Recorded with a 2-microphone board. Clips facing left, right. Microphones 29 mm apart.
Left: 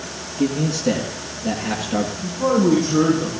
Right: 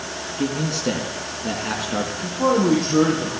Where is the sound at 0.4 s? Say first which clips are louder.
Left 4 dB; 10° right (ahead or behind), 2 m.